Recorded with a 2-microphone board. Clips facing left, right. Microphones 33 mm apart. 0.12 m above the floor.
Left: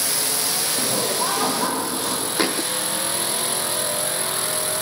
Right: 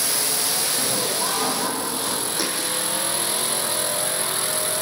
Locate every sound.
0.8 s laughter: 20° left (ahead or behind), 5 m
2.4 s a thud: 45° left (ahead or behind), 1.8 m